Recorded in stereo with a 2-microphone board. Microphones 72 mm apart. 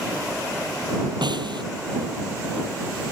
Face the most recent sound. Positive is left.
turn(degrees=-85)